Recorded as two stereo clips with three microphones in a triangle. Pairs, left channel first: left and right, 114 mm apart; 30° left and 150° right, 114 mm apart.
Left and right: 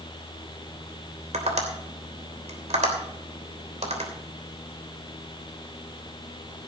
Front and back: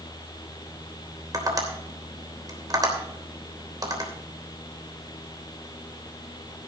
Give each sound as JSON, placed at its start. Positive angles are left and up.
{"t": 1.3, "sound": "tapping", "azimuth_deg": -95, "distance_m": 3.0}